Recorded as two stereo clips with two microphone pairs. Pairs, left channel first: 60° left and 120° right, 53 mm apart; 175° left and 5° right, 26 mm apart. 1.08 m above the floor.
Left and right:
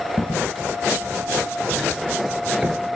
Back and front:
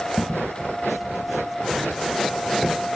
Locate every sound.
0.2 s footsteps: 55° left, 1.7 m; by 2.8 s 135° right, 1.2 m